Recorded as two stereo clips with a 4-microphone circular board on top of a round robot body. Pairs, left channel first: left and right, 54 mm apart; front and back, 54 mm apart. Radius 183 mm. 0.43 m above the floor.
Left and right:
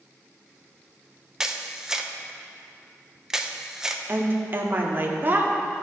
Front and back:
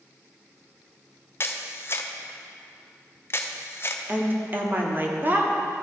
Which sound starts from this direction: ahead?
A camera shutter, at 1.4 s.